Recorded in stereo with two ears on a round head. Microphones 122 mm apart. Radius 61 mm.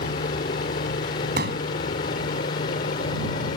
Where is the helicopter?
65° left (ahead or behind); by 3.6 s 60° left (ahead or behind).